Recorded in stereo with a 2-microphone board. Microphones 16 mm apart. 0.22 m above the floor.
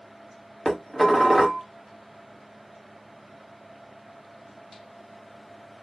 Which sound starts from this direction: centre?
Dishes clattering, at 0.7 s.